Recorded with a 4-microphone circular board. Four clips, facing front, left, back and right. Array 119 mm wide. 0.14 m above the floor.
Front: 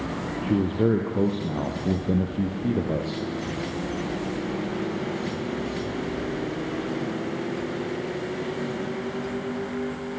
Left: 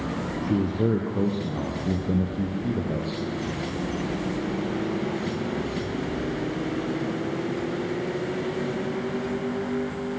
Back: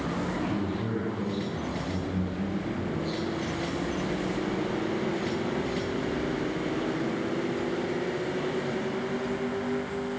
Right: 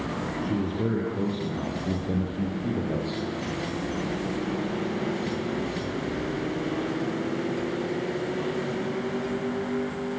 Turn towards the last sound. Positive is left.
turn(degrees=-5)